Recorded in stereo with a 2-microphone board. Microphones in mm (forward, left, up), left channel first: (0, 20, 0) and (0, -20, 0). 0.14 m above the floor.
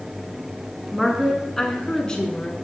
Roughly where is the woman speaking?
Centre.